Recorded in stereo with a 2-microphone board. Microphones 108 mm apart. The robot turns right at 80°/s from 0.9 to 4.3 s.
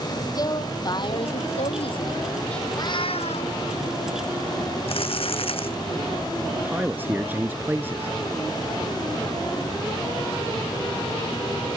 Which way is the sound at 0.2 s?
40° left.